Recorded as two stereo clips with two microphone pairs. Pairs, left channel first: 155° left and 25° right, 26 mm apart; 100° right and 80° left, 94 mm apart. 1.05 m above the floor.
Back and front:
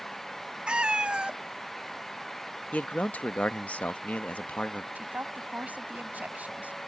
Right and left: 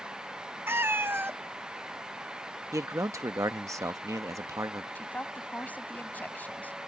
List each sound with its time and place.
0.7 s a cat meowing: 15° left
2.7 s a man speaking: 140° left
5.0 s a woman speaking: 30° right